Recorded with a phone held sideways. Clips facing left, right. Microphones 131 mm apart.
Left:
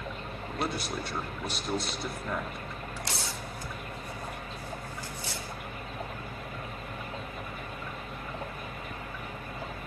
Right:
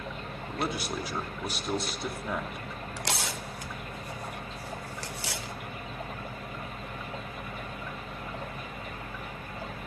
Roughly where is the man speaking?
Centre.